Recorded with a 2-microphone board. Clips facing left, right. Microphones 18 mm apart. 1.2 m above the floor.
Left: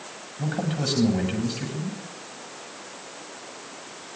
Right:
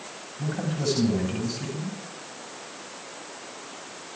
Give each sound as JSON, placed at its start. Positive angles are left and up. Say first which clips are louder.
{"t": 0.4, "sound": "a man speaking", "louder": "left 1 dB", "side_deg": 20, "distance_m": 8.0}